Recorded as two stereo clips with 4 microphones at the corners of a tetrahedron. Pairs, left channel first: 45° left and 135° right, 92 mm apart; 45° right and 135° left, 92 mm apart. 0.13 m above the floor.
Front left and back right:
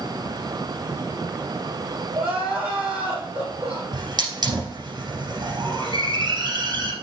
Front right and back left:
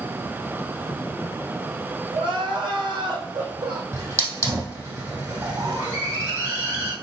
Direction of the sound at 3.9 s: 165° right.